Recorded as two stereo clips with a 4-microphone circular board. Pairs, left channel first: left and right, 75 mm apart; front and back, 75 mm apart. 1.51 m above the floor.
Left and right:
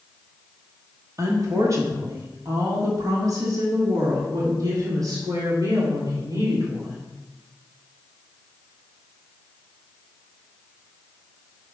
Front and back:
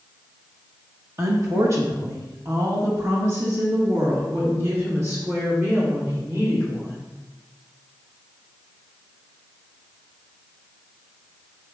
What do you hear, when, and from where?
1.2 s a woman speaking: 135° right, 1.4 m; by 7.1 s 125° right, 4.5 m